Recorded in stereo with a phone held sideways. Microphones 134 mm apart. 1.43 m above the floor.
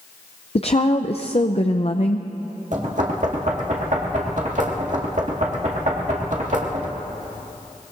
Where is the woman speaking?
50° left (ahead or behind), 0.5 m.